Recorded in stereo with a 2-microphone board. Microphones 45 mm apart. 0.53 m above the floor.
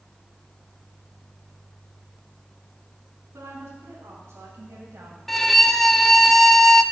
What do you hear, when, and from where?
3.3 s a woman speaking: 75° right (ahead or behind), 3.5 m; by 5.2 s 65° right (ahead or behind), 2.5 m
5.3 s a violin: 10° left (ahead or behind), 0.9 m